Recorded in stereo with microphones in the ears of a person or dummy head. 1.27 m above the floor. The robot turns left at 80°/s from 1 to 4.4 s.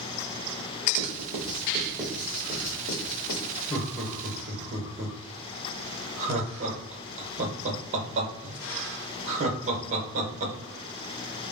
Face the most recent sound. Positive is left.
turn(degrees=-35)  # may be behind; listen again after turning